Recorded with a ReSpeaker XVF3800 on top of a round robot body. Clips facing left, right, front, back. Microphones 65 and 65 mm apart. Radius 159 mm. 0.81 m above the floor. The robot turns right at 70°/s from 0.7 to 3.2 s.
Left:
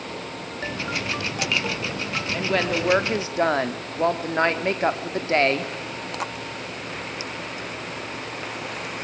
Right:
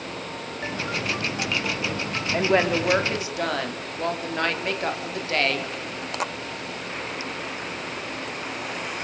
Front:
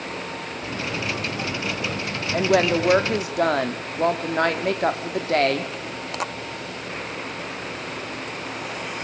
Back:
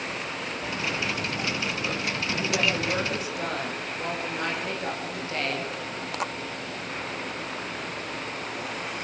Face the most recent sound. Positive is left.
turn(degrees=30)